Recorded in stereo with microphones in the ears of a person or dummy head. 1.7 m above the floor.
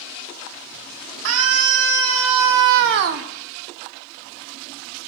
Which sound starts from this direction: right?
A scream, at 1.2 s.